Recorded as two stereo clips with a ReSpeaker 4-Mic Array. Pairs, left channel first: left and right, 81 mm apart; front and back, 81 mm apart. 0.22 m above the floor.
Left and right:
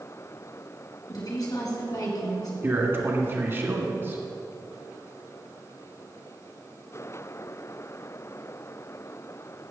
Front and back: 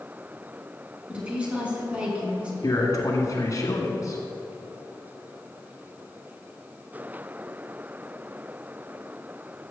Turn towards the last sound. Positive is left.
turn(degrees=-35)